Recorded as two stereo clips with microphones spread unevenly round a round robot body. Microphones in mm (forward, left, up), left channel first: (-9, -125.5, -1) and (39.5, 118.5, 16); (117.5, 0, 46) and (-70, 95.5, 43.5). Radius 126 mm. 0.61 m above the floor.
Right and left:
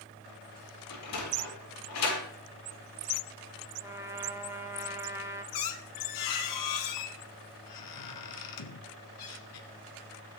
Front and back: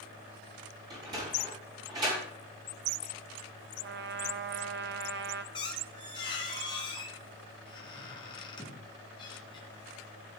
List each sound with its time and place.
0.9 s a sliding door: 135° right, 5.5 m
3.8 s a trumpet: 160° left, 1.2 m
5.5 s a squeak: 100° right, 1.7 m